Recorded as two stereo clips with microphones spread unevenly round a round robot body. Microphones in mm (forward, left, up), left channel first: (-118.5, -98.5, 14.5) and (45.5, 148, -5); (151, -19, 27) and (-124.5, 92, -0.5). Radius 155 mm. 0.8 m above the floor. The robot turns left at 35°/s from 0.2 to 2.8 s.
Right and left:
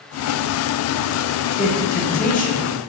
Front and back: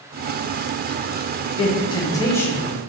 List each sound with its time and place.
1.6 s a man speaking: 75° right, 0.5 m; by 2.8 s 120° right, 0.5 m